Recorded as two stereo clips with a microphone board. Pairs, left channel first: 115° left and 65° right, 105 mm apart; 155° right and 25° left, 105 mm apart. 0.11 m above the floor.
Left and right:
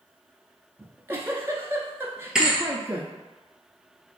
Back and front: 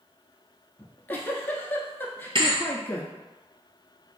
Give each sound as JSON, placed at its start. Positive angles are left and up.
{"t": 0.8, "sound": "a giggle", "azimuth_deg": -105, "distance_m": 0.7}
{"t": 2.4, "sound": "a thud", "azimuth_deg": 15, "distance_m": 0.9}